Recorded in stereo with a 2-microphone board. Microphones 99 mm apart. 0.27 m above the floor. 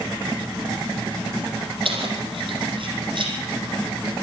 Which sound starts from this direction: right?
Keys jangling, at 1.9 s.